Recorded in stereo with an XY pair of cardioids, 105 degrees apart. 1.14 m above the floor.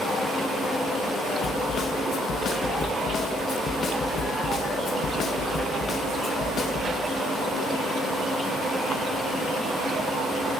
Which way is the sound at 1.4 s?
55° left.